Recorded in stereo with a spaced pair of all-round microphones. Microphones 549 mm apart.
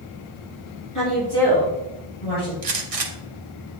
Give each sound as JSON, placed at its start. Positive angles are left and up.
{"t": 0.9, "sound": "a woman speaking", "side_deg": 35, "distance_m": 2.5}
{"t": 2.6, "sound": "a gunshot", "side_deg": -80, "distance_m": 0.9}